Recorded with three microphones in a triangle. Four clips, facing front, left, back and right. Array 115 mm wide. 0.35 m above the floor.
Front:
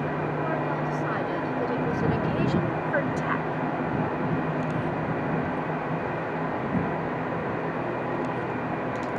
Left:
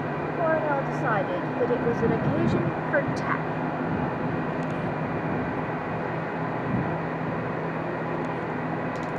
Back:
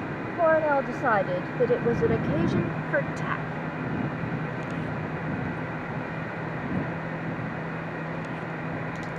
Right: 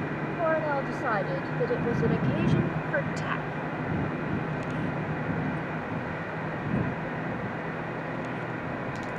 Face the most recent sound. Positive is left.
turn(degrees=70)